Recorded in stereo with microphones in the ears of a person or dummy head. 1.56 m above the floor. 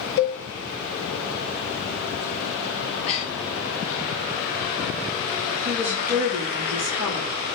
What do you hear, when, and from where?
0.2 s a cowbell: 65° left (ahead or behind), 4 m
2.8 s breathing: 35° left (ahead or behind), 3 m
5.7 s a woman speaking: 5° right (ahead or behind), 3 m